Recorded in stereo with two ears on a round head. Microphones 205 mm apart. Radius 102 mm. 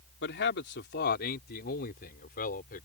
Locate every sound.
0.2 s a man speaking: 50° left (ahead or behind); by 2.9 s 40° left (ahead or behind)